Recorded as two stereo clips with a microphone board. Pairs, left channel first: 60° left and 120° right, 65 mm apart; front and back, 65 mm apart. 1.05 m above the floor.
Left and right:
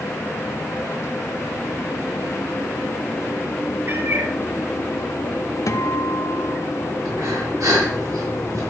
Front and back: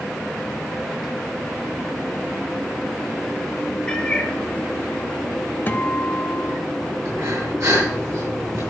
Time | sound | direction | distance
3.9 | a cat meowing | 75° right | 1.7 m
5.7 | a guitar | 55° left | 0.8 m
7.0 | breathing | 150° right | 6 m